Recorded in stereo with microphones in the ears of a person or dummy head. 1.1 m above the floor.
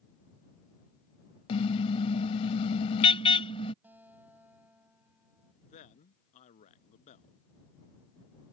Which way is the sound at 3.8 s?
10° right (ahead or behind).